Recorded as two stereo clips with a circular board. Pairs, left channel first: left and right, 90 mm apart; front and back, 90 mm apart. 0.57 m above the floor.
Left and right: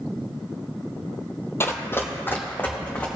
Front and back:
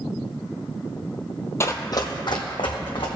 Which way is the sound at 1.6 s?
45° left.